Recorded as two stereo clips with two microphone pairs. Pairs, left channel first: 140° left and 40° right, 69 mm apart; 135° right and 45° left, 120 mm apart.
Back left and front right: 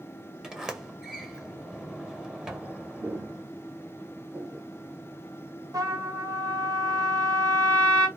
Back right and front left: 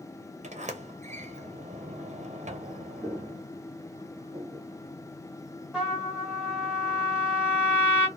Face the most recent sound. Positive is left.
turn(degrees=-30)